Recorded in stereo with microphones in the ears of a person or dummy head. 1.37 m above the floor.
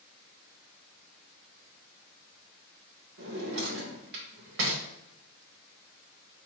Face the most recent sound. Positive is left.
turn(degrees=-65)  # may be behind; listen again after turning